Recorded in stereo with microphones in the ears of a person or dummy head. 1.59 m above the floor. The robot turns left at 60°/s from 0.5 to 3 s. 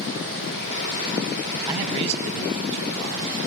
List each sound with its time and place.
1.7 s a man speaking: 10° right, 1.4 m; by 3.3 s 90° right, 1.4 m